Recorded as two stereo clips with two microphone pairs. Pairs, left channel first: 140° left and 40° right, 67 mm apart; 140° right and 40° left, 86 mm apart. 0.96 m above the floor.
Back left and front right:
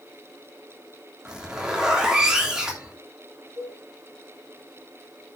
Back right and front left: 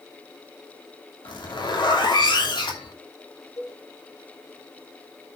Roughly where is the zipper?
Behind right.